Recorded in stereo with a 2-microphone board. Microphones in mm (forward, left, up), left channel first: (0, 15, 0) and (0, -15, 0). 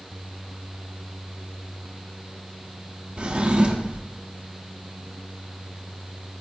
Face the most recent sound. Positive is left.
turn(degrees=-35)  # may be behind; listen again after turning